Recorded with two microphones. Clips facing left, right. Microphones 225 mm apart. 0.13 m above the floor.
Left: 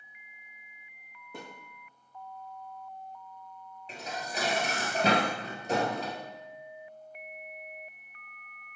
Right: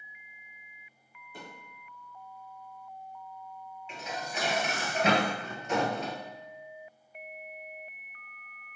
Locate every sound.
1.3 s a thud: 75° left (ahead or behind), 3 m
3.9 s dishes clattering: 40° left (ahead or behind), 1.4 m